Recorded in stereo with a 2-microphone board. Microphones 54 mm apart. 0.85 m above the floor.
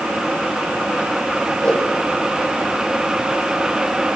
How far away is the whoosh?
About 6 m.